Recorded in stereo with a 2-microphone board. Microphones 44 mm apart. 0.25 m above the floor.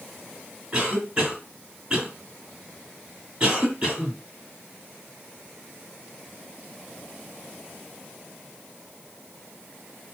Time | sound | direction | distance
0.7 | a cough | 25° right (ahead or behind) | 2 m